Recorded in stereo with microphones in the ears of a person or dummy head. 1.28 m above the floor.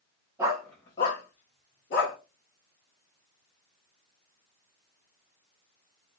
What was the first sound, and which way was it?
A dog barking, 5° right (ahead or behind).